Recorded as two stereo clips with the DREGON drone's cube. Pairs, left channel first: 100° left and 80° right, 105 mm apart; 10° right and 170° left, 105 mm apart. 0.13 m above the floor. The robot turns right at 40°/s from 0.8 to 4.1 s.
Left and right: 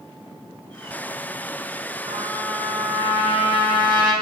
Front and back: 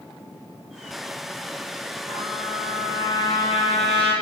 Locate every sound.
2.1 s a trumpet: 105° right, 3.5 m; by 4.1 s 20° right, 3.5 m